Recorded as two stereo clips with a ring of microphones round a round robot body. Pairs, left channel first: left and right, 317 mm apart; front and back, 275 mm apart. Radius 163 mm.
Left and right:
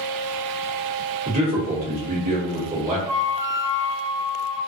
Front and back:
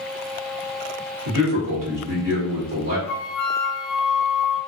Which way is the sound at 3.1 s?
10° right.